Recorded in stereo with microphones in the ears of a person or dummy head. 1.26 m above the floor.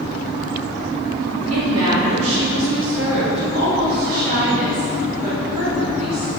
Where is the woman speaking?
85° right, 2.5 m; by 6.3 s 35° right (ahead or behind), 4 m.